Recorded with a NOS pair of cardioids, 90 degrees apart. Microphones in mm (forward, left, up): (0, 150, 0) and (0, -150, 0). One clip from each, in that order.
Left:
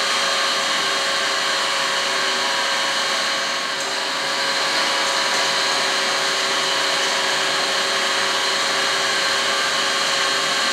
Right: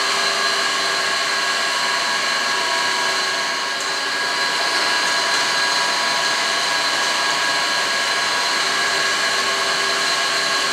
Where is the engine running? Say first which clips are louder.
Right 1 dB; straight ahead, 2.5 m.